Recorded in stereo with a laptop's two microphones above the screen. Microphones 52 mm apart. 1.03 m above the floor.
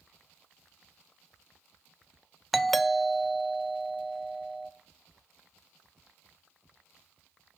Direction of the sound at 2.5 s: 5° left (ahead or behind).